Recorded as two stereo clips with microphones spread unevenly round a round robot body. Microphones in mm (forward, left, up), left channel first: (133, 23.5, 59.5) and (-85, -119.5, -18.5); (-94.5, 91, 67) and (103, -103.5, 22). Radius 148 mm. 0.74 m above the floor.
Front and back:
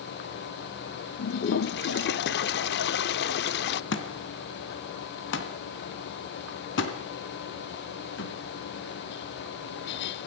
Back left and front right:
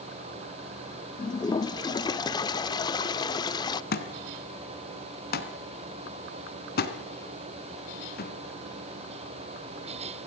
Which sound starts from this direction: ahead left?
A toilet flushing, at 1.2 s.